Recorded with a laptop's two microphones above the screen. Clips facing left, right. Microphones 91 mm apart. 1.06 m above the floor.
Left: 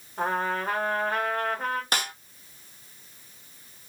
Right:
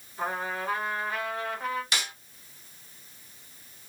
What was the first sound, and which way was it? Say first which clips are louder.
A trumpet: left 4 dB; 50° left (ahead or behind).